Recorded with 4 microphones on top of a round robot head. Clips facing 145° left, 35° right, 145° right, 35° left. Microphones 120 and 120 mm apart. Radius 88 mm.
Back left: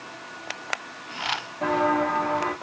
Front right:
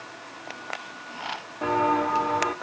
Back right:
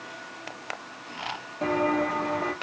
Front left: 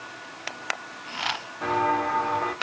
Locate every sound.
1.6 s footsteps: 115° right, 0.9 m